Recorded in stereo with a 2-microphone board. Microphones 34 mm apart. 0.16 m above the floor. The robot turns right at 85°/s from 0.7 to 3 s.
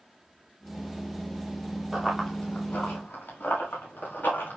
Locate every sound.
1.9 s running footsteps: 15° right (ahead or behind), 5.5 m; by 4.6 s 65° left (ahead or behind), 7 m